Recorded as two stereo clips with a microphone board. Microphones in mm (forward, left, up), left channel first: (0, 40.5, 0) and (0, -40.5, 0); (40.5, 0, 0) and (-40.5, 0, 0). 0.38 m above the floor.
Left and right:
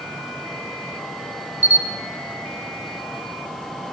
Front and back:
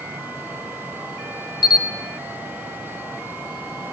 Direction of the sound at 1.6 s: 20° right.